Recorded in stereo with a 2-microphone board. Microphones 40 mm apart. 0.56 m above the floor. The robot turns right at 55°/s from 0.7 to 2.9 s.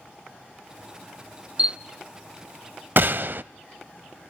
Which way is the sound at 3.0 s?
55° right (ahead or behind).